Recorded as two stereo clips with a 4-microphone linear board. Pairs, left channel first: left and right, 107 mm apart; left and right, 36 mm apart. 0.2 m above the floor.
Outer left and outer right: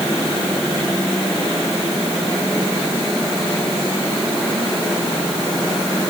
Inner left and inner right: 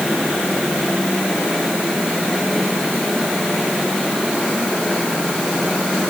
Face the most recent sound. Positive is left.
No sound to turn to.